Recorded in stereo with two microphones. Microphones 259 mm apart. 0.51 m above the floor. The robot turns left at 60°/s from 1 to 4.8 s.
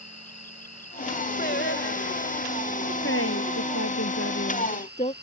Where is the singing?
140° left; by 2.5 s 75° left.